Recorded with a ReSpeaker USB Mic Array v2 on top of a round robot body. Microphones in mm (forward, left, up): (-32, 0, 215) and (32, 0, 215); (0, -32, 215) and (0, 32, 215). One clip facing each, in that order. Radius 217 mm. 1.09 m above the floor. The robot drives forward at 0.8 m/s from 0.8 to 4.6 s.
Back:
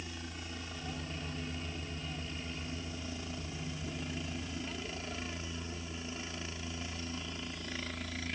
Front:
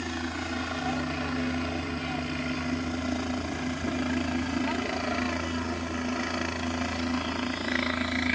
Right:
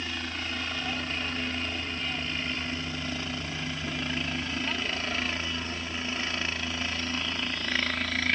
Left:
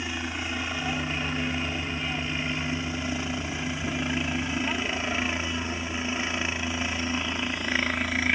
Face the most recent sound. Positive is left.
turn(degrees=15)